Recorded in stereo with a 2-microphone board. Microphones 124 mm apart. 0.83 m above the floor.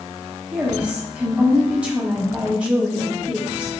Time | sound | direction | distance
0.5 | a woman speaking | 10° right (ahead or behind) | 1.1 m